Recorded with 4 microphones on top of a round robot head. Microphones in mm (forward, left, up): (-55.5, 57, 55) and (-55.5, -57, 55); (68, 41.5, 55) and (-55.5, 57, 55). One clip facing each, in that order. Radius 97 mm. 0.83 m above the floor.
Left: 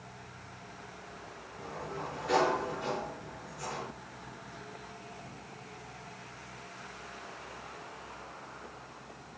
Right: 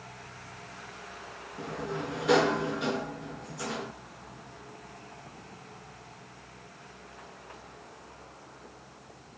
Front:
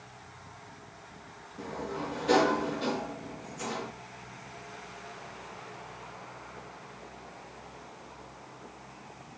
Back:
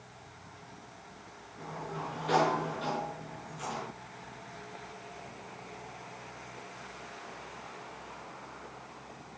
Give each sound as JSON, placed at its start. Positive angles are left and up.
{"t": 1.6, "sound": "a sliding door", "azimuth_deg": -70, "distance_m": 4.5}